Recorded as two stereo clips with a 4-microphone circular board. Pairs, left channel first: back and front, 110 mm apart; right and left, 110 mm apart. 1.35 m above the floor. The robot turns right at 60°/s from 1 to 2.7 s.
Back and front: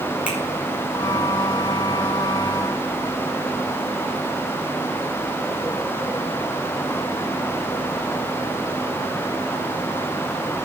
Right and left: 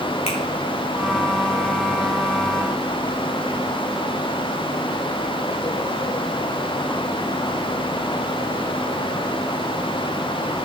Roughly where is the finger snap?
Right.